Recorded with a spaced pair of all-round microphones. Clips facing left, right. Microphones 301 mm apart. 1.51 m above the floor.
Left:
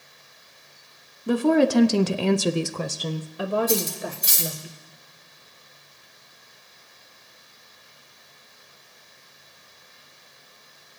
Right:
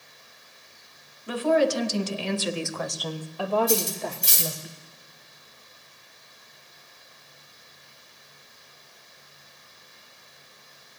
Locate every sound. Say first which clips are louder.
1.3 s a woman speaking: left 4 dB; 50° left (ahead or behind), 0.9 m; by 4.7 s 5° left (ahead or behind), 1.9 m
3.7 s cutlery clinking: left 1 dB; 40° right (ahead or behind), 1.6 m